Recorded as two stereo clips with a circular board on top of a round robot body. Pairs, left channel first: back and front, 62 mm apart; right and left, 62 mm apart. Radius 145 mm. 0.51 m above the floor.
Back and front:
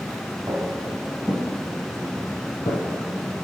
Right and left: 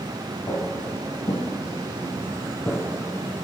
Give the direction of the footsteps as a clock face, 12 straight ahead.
2 o'clock.